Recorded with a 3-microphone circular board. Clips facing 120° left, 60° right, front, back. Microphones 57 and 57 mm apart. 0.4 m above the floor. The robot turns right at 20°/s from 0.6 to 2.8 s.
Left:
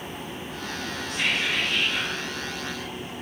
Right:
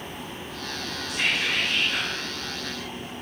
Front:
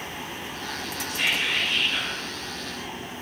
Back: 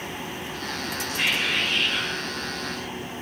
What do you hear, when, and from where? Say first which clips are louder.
1.1 s whispering: even, even; 135° right, 1.3 m; by 2.2 s 110° right, 1.3 m